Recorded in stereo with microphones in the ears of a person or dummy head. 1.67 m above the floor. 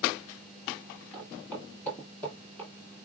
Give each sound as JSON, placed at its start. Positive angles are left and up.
{"t": 1.1, "sound": "footsteps", "side_deg": 5, "distance_m": 1.8}